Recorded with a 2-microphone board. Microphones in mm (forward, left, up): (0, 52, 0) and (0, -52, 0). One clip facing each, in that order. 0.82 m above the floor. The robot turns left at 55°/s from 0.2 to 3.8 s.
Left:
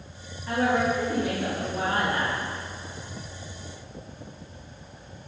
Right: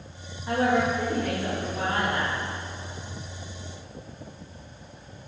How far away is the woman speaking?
About 1.3 m.